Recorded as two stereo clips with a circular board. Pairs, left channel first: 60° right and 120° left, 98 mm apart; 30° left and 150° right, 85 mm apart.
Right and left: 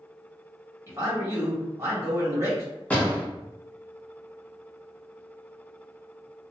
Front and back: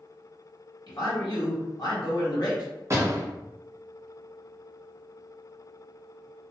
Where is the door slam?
125° right, 0.8 m.